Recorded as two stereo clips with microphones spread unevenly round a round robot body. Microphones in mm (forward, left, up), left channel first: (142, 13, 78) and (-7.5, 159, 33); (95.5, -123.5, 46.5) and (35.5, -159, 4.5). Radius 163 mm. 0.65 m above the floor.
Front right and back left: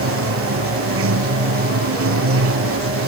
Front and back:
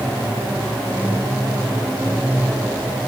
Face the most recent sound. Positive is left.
turn(degrees=130)